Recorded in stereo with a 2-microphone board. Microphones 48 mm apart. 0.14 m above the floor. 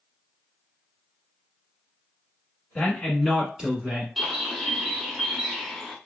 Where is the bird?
5° right (ahead or behind), 0.6 m.